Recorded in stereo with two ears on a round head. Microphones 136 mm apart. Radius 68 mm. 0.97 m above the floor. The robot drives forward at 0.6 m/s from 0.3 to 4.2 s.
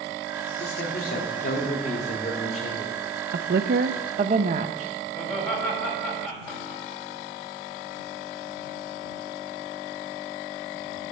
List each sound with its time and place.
0.6 s a man speaking: 70° left (ahead or behind), 2.0 m; by 3.0 s 45° left (ahead or behind), 2.5 m
3.3 s a woman speaking: 60° right (ahead or behind), 0.5 m; by 4.9 s 45° right (ahead or behind), 0.6 m
5.1 s laughter: 10° left (ahead or behind), 6 m